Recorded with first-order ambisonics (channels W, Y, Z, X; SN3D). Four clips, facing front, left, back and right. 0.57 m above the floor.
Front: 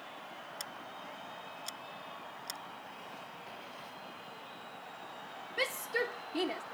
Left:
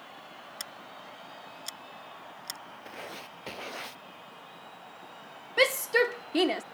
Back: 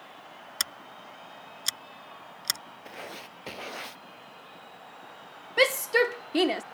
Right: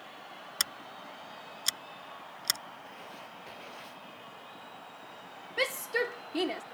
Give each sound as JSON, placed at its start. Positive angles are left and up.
{"t": 0.6, "sound": "scissors", "azimuth_deg": -145}
{"t": 2.9, "sound": "writing", "azimuth_deg": 145}
{"t": 5.6, "sound": "a shout", "azimuth_deg": 150}